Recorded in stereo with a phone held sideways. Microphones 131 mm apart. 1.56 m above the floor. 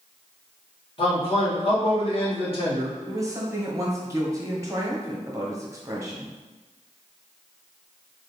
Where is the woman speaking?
25° right (ahead or behind), 1.2 m.